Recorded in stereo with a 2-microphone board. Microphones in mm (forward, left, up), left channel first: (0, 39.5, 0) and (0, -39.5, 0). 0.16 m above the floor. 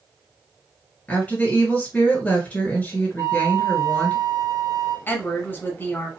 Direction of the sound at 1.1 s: 20° left (ahead or behind).